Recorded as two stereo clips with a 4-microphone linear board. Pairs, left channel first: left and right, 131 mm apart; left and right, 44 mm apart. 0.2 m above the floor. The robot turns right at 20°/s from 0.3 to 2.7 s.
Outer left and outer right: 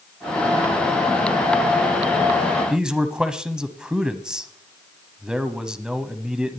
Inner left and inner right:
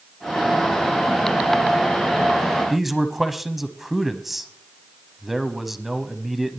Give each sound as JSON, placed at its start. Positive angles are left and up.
{"t": 2.7, "sound": "a man speaking", "side_deg": -5, "distance_m": 1.0}